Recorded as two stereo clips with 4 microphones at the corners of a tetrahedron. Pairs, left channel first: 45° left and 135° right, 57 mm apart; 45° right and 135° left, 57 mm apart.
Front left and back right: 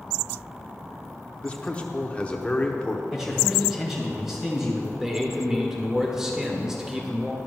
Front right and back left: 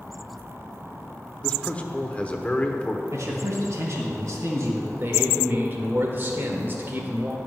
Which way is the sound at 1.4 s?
5° right.